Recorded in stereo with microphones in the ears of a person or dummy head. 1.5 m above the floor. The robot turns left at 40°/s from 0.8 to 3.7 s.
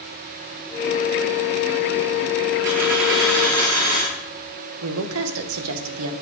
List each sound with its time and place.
2.6 s a dropped coin: 75° right, 1.8 m; by 4.1 s 120° right, 1.8 m
4.8 s a woman speaking: 75° right (ahead or behind), 1.0 m